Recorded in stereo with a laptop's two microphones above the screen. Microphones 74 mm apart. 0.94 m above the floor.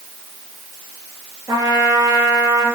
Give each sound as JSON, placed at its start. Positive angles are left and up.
{"t": 1.5, "sound": "a trumpet", "side_deg": -50, "distance_m": 3.0}